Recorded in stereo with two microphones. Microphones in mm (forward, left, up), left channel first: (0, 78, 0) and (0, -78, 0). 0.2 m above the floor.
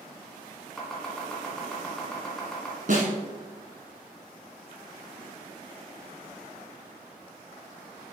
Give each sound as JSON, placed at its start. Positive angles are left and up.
{"t": 0.8, "sound": "chopping", "side_deg": 5, "distance_m": 2.0}
{"t": 2.9, "sound": "a snare drum", "side_deg": -60, "distance_m": 1.4}